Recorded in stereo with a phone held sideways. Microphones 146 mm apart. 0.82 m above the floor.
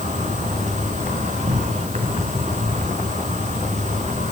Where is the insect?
55° right (ahead or behind), 3.5 m.